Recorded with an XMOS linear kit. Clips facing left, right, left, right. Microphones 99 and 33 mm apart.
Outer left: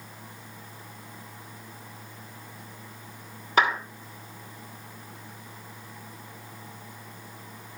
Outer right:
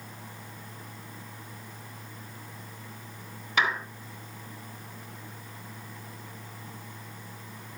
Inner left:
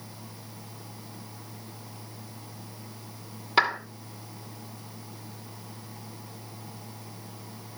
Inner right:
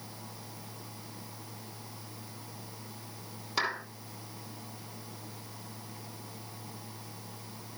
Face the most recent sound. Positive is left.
turn(degrees=40)  # may be behind; listen again after turning